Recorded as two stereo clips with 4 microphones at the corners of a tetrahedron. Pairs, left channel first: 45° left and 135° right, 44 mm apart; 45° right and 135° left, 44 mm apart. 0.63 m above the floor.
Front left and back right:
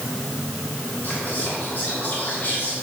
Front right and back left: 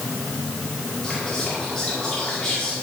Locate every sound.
1.0 s whispering: 25° left, 1.7 m